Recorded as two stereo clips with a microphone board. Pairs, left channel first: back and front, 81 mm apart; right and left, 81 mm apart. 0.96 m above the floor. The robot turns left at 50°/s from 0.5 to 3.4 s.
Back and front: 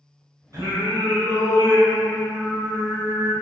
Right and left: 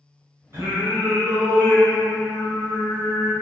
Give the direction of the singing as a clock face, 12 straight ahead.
11 o'clock.